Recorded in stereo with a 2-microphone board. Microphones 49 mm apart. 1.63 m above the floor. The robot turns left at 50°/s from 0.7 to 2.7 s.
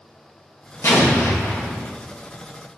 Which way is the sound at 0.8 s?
110° left.